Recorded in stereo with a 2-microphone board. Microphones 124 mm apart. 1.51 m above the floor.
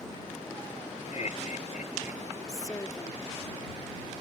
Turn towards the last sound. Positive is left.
turn(degrees=30)  # may be behind; listen again after turning